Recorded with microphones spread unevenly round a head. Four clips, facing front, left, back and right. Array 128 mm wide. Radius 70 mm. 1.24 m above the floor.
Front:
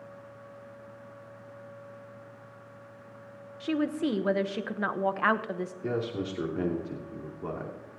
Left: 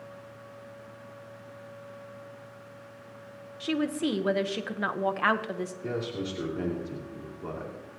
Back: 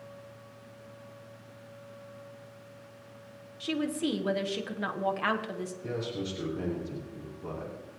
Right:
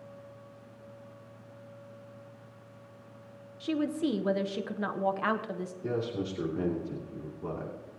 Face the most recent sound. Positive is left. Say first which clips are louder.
# right 2 dB, front 4 dB
turn(degrees=25)